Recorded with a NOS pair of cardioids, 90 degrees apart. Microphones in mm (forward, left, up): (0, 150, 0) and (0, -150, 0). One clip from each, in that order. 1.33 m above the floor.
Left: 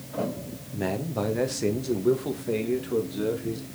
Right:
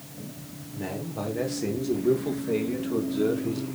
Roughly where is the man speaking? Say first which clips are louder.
Left 5 dB; ahead left.